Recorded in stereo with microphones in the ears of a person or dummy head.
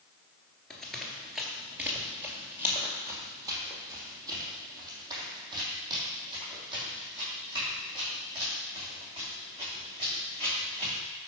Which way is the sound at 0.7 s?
5° left (ahead or behind).